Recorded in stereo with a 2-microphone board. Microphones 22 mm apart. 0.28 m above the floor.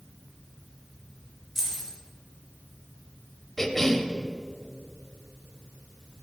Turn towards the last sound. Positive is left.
turn(degrees=15)  # may be behind; listen again after turning